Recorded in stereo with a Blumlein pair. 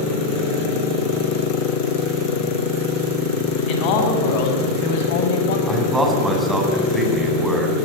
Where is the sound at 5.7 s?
10° right, 7 m.